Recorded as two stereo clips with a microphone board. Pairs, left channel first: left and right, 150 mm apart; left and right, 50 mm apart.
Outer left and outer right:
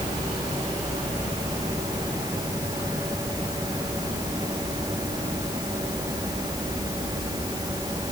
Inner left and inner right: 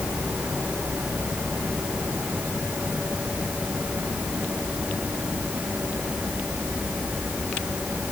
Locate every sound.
Only background noise.